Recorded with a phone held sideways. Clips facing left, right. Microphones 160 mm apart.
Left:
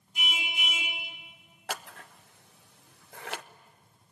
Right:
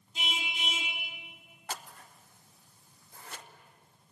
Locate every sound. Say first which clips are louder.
0.1 s a car horn: left 1 dB; 25° right (ahead or behind), 4.5 m
1.7 s scissors: left 4 dB; 70° left (ahead or behind), 0.7 m